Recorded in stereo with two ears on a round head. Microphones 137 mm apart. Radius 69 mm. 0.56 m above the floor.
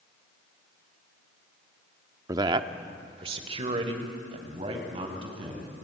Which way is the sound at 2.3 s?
20° right (ahead or behind).